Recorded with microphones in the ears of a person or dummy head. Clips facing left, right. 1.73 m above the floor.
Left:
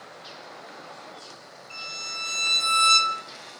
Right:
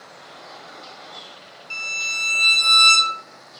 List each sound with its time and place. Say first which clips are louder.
1.7 s a violin: right 3 dB; 60° right (ahead or behind), 1.0 m